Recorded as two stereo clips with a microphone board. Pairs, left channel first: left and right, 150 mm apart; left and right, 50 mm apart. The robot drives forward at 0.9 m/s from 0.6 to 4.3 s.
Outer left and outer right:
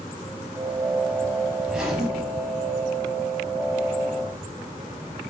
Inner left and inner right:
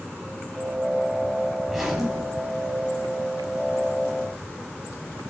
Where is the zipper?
5° right (ahead or behind), 3 m.